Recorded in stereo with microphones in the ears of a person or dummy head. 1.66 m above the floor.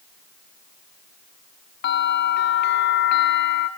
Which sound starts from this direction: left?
A bell, at 1.8 s.